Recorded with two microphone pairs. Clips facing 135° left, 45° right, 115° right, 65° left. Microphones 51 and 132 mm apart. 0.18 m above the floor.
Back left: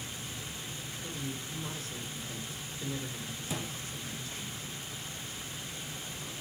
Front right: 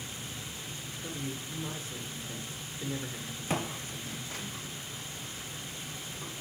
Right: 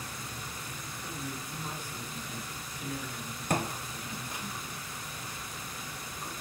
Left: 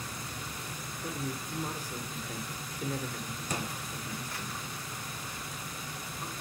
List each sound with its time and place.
1.0 s a man speaking: 20° left, 3 m
3.5 s footsteps: 85° right, 0.9 m; by 6.3 s 25° right, 4.5 m